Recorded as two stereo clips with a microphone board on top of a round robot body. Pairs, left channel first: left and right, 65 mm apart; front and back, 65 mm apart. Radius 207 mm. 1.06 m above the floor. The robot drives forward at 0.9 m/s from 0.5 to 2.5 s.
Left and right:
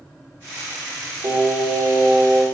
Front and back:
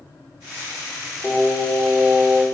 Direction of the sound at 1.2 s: 85° right.